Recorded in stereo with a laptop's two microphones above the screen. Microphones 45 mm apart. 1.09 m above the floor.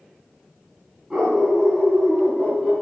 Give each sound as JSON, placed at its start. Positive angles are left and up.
{"t": 1.1, "sound": "a dog barking", "side_deg": -15, "distance_m": 4.5}